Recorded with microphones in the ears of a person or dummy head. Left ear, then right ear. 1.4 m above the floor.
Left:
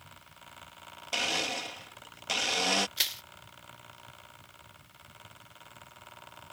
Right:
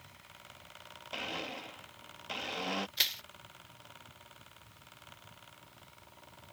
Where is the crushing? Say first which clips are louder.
Even; 5° right (ahead or behind).